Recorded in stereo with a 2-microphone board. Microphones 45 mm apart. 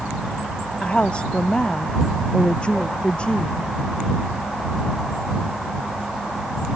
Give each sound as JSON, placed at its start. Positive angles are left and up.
{"t": 0.8, "sound": "a woman speaking", "side_deg": 20}